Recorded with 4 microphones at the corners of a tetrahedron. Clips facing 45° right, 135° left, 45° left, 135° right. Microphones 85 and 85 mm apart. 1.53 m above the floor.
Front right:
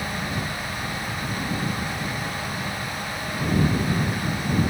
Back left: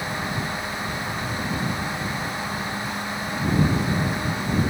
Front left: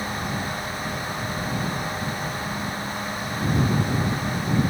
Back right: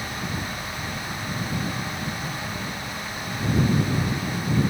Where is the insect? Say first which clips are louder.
Back left 1 dB, front left 3 dB; 25° right.